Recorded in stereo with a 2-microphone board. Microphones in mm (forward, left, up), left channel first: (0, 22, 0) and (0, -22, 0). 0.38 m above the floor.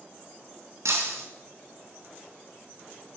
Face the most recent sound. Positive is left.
turn(degrees=-70)  # may be behind; listen again after turning